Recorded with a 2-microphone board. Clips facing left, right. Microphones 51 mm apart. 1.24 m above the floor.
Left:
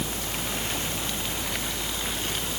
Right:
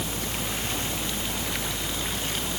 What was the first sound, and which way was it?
Only background noise.